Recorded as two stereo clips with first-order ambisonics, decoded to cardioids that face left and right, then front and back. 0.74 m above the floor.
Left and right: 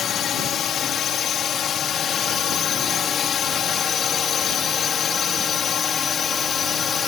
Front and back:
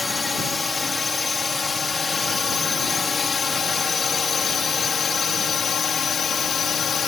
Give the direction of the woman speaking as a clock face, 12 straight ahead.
No woman speaking in this recording.